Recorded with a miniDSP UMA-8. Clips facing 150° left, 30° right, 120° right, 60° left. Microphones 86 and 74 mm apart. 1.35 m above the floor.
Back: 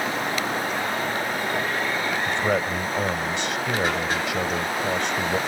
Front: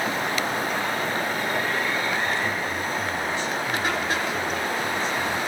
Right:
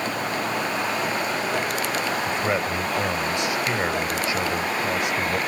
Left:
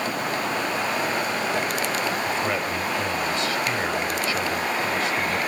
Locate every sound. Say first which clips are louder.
2.3 s a man speaking: back 3 dB, right 1 dB; 170° left